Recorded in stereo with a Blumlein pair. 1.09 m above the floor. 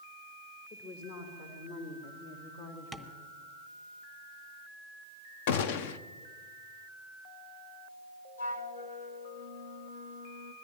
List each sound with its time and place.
0.7 s a woman speaking: 50° left, 4.5 m; by 3.3 s 75° left, 2.5 m
2.9 s tapping: 5° left, 1.2 m
5.5 s a gunshot: 50° left, 0.9 m
8.4 s a flute: 60° left, 1.0 m